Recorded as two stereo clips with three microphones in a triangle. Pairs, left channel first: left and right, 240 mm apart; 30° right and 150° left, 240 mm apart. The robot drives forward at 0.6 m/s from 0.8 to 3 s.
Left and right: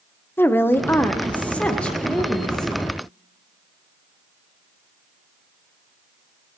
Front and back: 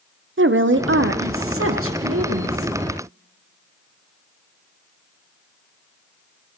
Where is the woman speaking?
170° left, 0.6 m; by 2.7 s 175° left, 1.7 m.